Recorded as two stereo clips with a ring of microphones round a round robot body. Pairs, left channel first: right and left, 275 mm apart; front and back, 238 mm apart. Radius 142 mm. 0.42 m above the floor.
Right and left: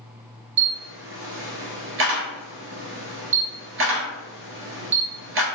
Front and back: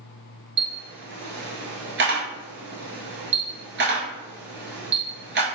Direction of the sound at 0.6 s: 140° left.